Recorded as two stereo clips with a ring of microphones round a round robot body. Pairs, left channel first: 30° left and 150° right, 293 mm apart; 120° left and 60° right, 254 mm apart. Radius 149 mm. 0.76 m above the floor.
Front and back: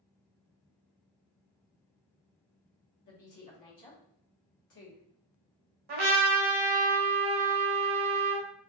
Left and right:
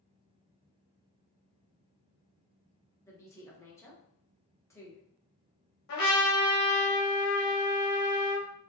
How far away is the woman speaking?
About 1.4 m.